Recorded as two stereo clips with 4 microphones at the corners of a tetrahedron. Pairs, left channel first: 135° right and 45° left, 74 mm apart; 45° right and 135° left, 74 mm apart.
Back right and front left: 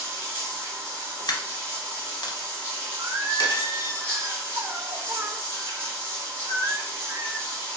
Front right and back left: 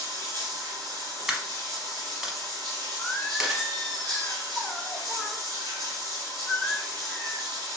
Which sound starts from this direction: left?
Running water, at 0.0 s.